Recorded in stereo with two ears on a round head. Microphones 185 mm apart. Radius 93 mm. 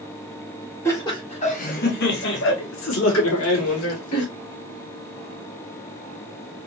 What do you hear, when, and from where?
0.8 s laughter: 10° left (ahead or behind), 0.9 m; by 4.2 s 80° left, 2.0 m